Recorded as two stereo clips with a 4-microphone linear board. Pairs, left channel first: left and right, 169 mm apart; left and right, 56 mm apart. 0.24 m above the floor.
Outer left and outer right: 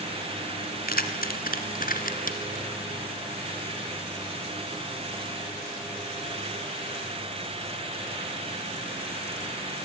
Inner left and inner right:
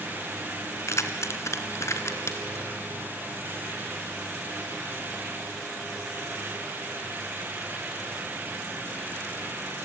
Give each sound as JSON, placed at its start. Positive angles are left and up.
{"t": 0.9, "sound": "keys jangling", "side_deg": 60, "distance_m": 1.8}